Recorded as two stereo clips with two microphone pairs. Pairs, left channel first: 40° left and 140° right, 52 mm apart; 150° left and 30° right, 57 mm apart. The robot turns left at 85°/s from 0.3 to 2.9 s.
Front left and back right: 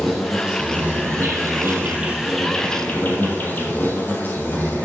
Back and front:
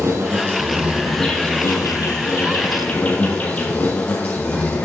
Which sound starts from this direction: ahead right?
An insect, at 0.0 s.